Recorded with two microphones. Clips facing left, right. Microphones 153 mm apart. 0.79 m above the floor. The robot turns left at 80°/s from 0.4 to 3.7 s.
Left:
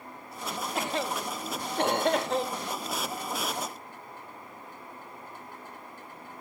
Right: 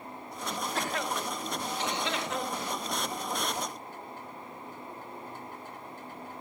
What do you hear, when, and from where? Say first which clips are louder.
0.8 s a cough: left 3 dB; 10° left (ahead or behind), 0.9 m; by 2.7 s 5° left (ahead or behind), 0.9 m